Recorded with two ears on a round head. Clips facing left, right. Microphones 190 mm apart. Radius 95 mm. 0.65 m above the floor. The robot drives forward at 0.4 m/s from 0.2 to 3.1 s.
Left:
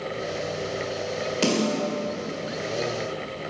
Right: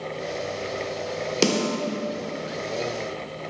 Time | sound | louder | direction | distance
1.4 | a snare drum | right 1 dB | 60° right (ahead or behind) | 1.7 m